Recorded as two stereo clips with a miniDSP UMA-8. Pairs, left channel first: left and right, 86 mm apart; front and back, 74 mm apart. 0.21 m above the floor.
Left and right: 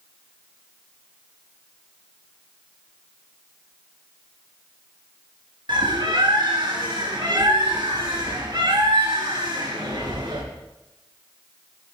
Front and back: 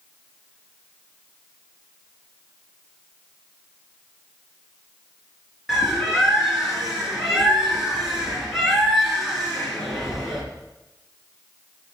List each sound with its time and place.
5.7 s a bird: 95° right, 3 m